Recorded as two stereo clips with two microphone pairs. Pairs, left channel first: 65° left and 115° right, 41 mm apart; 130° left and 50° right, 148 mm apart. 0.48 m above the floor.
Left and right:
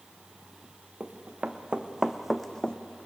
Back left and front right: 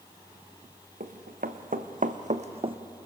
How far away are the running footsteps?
About 1.8 m.